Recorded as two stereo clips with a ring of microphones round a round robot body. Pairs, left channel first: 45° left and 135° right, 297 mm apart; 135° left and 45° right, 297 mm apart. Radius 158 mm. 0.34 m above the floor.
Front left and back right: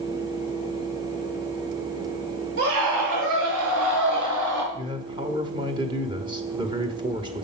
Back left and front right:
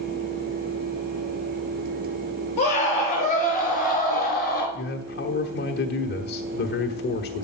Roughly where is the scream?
Behind right.